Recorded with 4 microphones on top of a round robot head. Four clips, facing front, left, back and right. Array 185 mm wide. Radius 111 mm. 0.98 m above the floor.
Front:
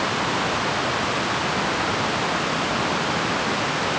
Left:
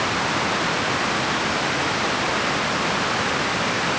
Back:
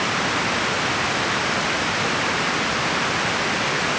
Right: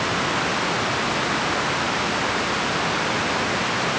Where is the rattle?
No rattle in this recording.